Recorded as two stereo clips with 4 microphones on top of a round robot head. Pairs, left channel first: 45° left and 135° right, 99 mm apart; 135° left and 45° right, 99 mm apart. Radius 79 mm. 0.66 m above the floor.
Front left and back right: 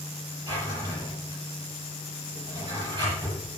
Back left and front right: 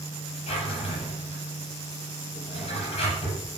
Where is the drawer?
165° left, 7.5 m.